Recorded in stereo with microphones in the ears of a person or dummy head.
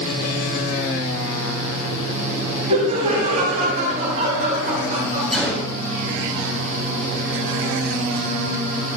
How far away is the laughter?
About 3 m.